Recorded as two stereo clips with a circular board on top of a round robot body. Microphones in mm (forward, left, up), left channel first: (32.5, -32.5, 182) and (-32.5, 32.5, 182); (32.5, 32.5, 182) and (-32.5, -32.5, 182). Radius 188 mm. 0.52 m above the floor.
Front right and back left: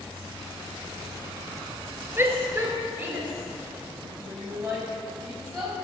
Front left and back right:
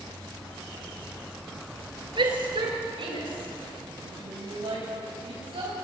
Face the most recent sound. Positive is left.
turn(degrees=-135)